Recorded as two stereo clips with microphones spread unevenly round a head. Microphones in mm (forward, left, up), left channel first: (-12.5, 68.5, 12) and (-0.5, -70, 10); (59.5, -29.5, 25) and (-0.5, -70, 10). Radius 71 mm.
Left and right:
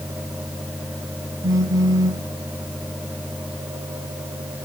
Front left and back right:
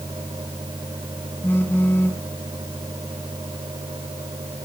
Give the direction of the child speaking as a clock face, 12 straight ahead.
No child speaking in this recording.